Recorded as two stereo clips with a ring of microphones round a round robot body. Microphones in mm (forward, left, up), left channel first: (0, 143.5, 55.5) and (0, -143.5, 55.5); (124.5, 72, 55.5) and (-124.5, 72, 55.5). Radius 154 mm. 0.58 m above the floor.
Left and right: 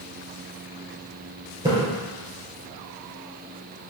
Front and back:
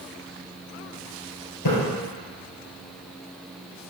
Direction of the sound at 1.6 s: 10° right.